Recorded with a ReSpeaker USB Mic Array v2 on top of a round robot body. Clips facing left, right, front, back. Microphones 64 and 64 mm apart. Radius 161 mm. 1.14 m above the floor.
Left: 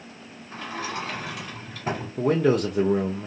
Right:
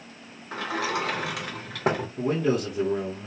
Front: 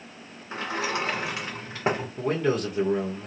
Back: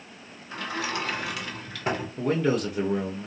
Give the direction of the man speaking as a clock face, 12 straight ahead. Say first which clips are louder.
Left 6 dB, back 2 dB; 9 o'clock.